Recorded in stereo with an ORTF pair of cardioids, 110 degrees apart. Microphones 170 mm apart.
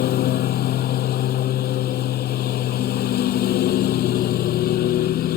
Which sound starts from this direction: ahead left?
A lawn mower, at 0.0 s.